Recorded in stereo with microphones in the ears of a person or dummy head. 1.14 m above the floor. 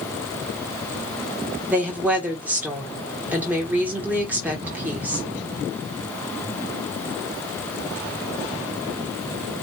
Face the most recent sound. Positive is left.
turn(degrees=-5)  # may be behind; listen again after turning